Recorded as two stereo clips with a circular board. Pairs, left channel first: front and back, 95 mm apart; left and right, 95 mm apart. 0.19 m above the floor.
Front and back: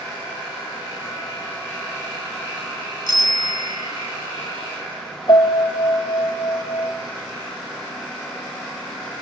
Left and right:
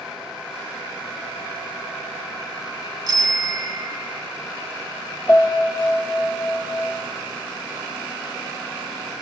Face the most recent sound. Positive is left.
turn(degrees=40)